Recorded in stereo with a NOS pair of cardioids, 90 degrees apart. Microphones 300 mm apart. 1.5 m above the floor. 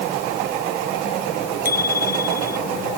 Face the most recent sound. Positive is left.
turn(degrees=30)